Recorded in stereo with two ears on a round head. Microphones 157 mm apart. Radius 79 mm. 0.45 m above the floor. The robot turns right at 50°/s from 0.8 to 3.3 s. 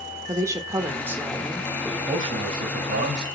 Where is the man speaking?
155° right, 2 m; by 3.2 s 95° right, 2 m.